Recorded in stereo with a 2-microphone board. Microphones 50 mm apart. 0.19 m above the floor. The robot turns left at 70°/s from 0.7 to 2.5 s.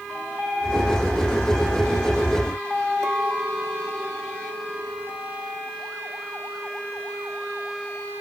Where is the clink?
80° right, 5.5 m.